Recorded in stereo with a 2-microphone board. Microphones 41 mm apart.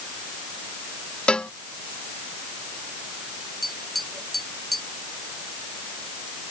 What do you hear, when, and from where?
1.3 s a cowbell: 25° left (ahead or behind)
3.6 s tapping: 5° left (ahead or behind)